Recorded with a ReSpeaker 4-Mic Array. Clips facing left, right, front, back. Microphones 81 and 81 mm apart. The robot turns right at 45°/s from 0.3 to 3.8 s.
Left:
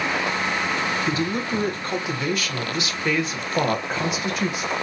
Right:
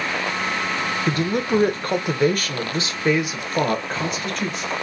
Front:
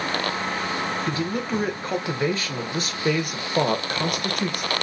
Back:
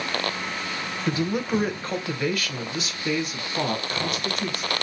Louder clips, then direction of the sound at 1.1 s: Right 3 dB, back 1 dB; 115° right.